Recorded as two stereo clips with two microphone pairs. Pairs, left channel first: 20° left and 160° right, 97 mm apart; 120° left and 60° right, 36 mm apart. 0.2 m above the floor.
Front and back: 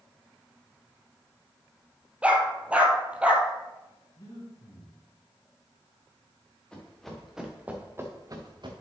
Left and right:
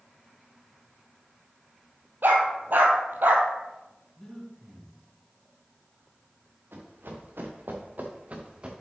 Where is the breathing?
40° left, 2.5 m.